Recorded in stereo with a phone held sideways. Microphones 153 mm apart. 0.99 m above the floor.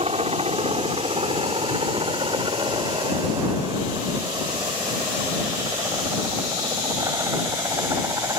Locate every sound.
0.0 s a helicopter: 40° right (ahead or behind); by 8.4 s 20° right (ahead or behind)